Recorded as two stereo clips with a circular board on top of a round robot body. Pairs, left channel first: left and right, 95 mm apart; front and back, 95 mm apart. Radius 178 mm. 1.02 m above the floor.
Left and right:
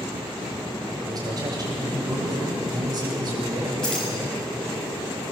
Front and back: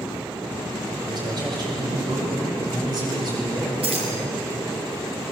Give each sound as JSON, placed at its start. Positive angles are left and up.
{"t": 0.9, "sound": "a man speaking", "azimuth_deg": -140, "distance_m": 6.0}
{"t": 3.8, "sound": "keys jangling", "azimuth_deg": 175, "distance_m": 5.5}